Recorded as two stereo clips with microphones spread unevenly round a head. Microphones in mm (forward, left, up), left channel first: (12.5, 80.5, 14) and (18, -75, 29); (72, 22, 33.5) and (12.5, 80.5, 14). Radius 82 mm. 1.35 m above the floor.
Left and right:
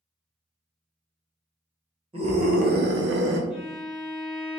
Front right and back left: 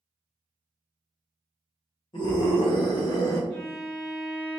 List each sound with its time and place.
2.1 s a scream: 35° right, 0.7 m; by 3.4 s 115° right, 0.7 m
3.5 s a violin: 10° right, 1.2 m